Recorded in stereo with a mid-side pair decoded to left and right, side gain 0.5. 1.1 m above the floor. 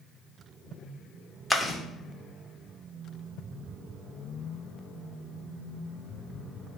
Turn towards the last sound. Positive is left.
turn(degrees=5)